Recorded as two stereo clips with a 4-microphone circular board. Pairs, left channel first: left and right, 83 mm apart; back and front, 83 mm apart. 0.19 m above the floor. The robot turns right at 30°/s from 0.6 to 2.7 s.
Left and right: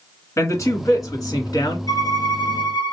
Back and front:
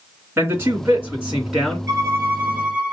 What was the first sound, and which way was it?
A man speaking, 50° left.